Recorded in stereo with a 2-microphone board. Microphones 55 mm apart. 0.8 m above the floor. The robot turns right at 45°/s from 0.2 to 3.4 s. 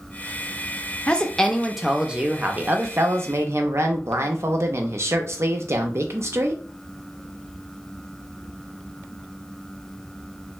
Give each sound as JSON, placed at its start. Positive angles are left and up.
{"t": 1.1, "sound": "a woman speaking", "azimuth_deg": 150, "distance_m": 0.6}